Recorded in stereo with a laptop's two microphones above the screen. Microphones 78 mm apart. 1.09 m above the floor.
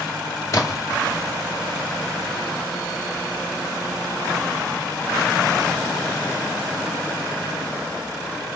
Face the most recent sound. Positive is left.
turn(degrees=45)  # may be behind; listen again after turning